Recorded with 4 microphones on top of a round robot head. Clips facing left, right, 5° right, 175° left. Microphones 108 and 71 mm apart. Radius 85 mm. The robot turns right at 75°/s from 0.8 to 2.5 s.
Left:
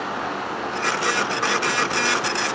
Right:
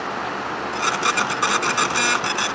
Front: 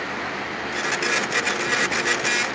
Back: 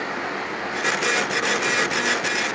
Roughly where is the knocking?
I don't hear knocking.